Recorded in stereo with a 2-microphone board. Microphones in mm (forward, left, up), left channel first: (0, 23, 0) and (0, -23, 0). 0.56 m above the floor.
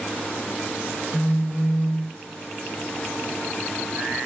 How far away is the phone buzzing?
About 1.1 m.